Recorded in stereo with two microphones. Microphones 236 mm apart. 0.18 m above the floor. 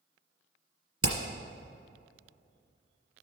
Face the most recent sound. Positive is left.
turn(degrees=-70)  # may be behind; listen again after turning